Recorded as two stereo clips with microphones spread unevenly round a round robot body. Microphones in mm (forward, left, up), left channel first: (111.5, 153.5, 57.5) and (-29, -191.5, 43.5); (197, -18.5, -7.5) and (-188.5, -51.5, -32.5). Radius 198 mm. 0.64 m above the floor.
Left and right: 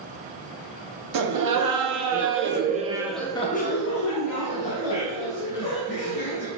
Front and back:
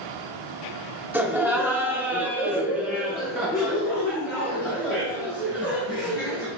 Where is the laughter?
95° right, 1.3 m; by 6.5 s 90° left, 2.0 m.